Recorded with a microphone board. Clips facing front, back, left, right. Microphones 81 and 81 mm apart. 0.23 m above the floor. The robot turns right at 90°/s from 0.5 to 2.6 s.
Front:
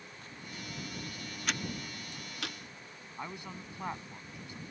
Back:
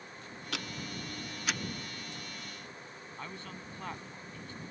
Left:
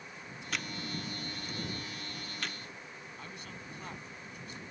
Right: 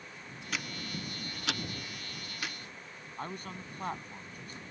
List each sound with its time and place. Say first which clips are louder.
0.5 s ticking: back 3 dB, even; straight behind; by 2.5 s 5° left
3.2 s a man speaking: front 3 dB, right 10 dB; 70° right